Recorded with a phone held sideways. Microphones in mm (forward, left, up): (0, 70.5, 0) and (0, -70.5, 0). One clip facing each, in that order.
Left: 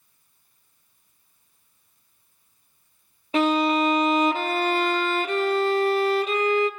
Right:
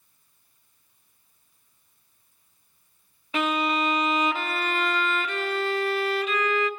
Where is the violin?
35° left (ahead or behind), 0.8 m.